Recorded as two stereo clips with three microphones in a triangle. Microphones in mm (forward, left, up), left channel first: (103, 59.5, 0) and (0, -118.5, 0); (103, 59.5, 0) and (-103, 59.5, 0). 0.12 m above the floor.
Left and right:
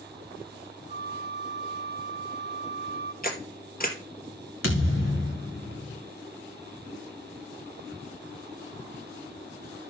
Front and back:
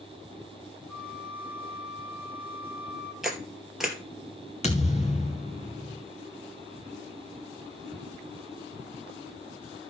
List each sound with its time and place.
0.9 s a flute: 65° left, 4 m
3.2 s a camera shutter: 90° left, 2.5 m
4.6 s a thud: 60° left, 1.9 m